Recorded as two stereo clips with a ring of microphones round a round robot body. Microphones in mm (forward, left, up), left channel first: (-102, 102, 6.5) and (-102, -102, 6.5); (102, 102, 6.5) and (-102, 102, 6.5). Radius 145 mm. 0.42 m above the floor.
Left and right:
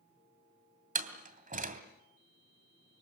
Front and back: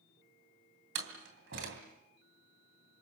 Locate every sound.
0.9 s a door slam: 135° right, 2.5 m